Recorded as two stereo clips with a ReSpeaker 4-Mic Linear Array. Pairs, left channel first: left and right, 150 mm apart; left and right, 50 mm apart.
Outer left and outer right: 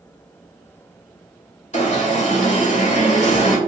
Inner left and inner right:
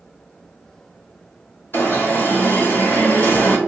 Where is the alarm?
50° left (ahead or behind), 2.5 m.